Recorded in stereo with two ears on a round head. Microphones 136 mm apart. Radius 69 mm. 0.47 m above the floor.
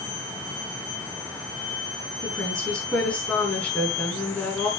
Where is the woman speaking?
5° left (ahead or behind), 5.5 m.